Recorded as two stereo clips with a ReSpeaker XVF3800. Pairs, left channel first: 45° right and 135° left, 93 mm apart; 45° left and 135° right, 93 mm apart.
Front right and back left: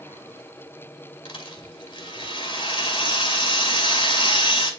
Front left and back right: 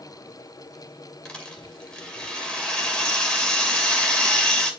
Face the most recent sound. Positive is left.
turn(degrees=-35)